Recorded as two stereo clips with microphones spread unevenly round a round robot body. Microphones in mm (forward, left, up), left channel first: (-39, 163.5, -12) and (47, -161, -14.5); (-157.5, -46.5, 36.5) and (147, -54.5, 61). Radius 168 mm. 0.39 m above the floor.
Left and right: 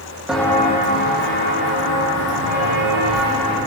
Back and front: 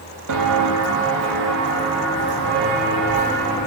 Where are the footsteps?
10° left, 0.6 m; by 3.6 s 60° left, 2.5 m.